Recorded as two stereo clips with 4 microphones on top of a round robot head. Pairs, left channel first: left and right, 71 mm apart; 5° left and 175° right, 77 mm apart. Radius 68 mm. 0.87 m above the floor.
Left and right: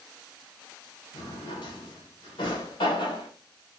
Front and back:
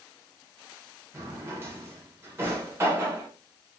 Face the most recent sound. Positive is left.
turn(degrees=125)